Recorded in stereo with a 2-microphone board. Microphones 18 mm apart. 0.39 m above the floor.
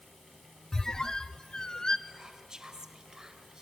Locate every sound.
0.7 s a squeak: 45° left (ahead or behind), 0.7 m
2.1 s whispering: 40° right (ahead or behind), 2.0 m